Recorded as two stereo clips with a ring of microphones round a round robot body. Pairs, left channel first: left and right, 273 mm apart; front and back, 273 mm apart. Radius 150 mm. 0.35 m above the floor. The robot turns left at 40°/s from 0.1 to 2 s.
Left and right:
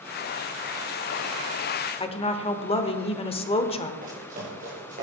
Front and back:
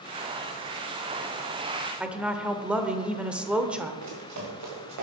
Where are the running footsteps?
155° right, 4.5 m; by 5.0 s 160° right, 5.5 m.